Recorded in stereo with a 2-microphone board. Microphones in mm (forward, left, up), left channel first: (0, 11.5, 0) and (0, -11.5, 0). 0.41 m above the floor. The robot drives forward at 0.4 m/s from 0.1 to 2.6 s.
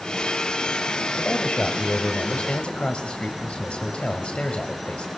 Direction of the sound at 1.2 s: 60° left (ahead or behind).